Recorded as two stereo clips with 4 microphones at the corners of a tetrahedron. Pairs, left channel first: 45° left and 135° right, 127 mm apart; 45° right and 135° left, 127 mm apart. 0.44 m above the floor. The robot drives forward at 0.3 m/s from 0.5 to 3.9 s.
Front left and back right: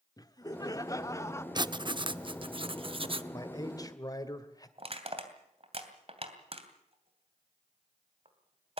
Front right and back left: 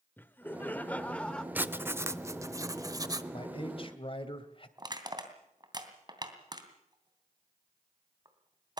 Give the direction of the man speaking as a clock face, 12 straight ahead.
12 o'clock.